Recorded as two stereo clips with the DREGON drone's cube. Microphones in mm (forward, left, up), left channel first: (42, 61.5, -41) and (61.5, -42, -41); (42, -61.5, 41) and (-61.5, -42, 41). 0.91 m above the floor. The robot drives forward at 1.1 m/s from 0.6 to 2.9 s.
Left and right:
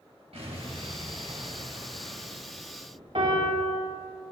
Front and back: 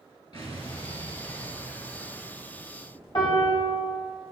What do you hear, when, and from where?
0.3 s an explosion: 50° right, 3 m; by 3.0 s 105° right, 2.5 m
3.1 s a piano: 55° right, 3 m